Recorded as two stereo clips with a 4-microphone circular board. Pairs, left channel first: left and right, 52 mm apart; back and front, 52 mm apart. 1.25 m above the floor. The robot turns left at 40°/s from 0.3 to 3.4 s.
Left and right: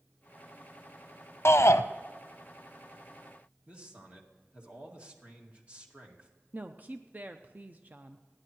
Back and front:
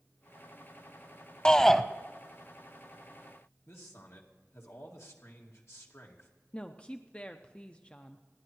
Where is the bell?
I don't hear a bell.